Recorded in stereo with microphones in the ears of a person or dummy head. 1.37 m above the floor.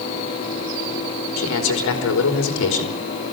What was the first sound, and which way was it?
A man speaking, 70° left (ahead or behind).